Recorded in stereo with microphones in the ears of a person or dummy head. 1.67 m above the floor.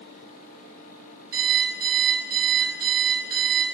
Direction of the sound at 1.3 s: 50° right (ahead or behind).